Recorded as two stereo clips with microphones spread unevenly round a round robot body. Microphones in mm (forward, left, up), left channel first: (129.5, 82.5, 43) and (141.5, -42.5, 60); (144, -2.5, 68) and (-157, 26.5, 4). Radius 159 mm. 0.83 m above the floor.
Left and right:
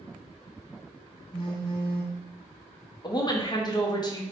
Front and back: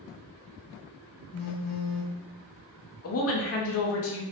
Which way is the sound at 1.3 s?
45° left.